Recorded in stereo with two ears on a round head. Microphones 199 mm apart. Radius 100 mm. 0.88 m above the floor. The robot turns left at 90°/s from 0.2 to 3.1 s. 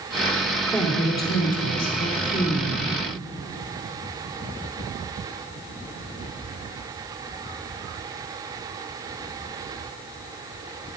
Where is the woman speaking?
175° left, 1.9 m; by 2.8 s 10° right, 1.9 m.